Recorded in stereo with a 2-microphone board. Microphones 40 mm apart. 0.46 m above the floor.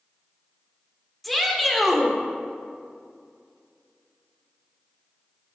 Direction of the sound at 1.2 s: 5° left (ahead or behind).